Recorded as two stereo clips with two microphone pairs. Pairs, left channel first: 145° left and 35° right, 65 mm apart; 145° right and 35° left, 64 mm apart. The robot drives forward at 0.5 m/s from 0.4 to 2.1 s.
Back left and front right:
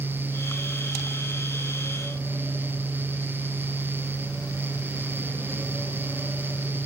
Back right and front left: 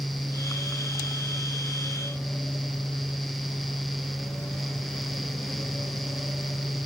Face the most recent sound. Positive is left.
No sound to turn to.